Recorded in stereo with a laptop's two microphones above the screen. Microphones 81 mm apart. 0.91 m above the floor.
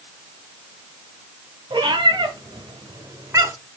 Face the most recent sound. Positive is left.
turn(degrees=-30)  # may be behind; listen again after turning